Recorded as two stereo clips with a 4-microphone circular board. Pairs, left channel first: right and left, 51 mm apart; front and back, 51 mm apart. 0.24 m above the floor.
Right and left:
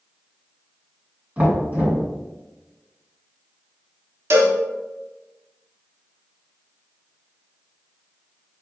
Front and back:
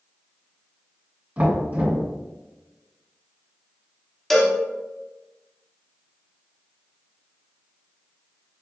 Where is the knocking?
130° left, 1.5 m.